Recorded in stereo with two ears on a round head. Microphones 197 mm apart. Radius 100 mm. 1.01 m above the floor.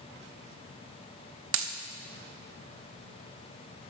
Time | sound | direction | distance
1.5 | a dropped coin | 60° right (ahead or behind) | 0.8 m